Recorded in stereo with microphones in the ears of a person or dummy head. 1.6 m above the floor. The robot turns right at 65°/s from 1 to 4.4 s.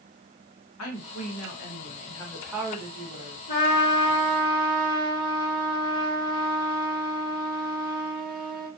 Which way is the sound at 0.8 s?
90° left.